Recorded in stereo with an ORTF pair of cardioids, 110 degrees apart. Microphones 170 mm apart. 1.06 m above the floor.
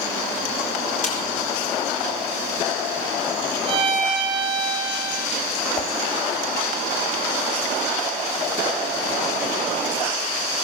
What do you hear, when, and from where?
1.0 s a snare drum: 45° left, 5.5 m
3.7 s a violin: 35° right, 7.5 m
5.8 s a whoosh: 30° left, 1.3 m